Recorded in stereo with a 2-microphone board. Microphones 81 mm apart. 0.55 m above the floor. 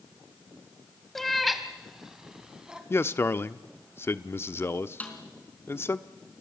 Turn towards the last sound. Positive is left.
turn(degrees=20)  # may be behind; listen again after turning